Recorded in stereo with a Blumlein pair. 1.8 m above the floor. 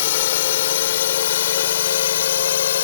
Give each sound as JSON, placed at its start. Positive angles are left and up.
{"t": 0.0, "sound": "a drone", "azimuth_deg": 55}